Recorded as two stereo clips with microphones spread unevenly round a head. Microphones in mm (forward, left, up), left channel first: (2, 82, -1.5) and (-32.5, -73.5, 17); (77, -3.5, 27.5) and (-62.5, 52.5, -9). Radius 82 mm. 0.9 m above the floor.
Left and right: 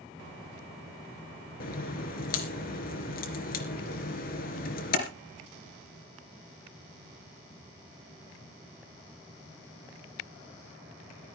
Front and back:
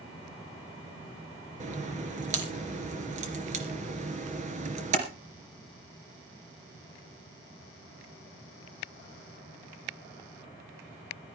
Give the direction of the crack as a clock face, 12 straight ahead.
8 o'clock.